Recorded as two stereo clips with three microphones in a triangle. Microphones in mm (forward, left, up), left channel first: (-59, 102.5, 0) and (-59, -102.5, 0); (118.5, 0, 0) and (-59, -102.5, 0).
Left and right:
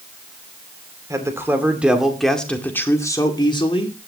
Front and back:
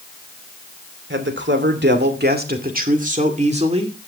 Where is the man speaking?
165° right, 2.5 m; by 4.0 s 150° left, 2 m.